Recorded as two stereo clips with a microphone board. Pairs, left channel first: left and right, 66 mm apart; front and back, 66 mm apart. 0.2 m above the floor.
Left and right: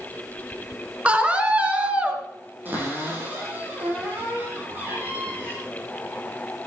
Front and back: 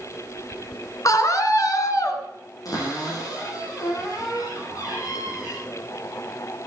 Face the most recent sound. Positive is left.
turn(degrees=-30)